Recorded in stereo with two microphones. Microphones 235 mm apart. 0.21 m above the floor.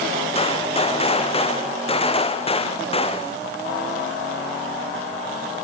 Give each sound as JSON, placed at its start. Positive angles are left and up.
{"t": 0.3, "sound": "a gunshot", "side_deg": 25, "distance_m": 2.5}